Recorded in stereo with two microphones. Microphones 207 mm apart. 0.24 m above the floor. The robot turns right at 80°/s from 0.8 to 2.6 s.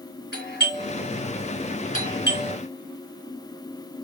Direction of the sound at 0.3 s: 55° left (ahead or behind).